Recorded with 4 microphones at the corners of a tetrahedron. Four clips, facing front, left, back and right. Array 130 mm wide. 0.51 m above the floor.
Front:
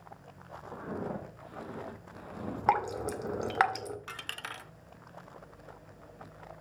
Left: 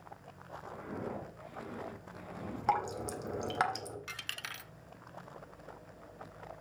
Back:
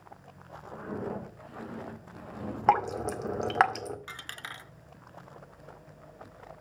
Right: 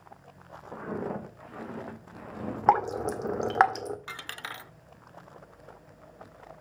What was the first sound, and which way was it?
Footsteps, 75° right.